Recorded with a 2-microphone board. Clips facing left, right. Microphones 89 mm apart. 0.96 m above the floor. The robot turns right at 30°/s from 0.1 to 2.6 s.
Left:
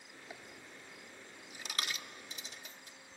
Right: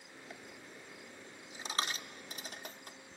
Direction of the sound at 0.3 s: 10° left (ahead or behind).